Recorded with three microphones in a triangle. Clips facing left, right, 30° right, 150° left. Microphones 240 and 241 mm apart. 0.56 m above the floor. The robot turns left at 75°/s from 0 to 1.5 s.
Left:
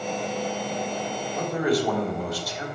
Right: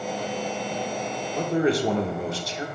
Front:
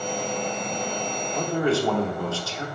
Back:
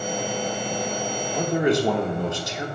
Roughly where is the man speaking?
Behind right.